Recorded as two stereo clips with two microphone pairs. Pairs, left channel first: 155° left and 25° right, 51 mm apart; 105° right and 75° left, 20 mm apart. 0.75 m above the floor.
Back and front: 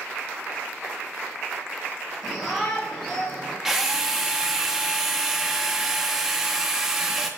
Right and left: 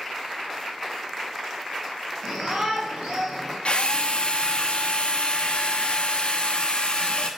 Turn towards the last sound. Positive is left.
turn(degrees=-105)